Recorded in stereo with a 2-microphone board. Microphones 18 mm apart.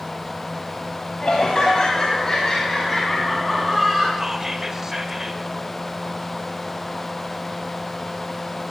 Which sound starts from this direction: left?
Laughter, at 1.2 s.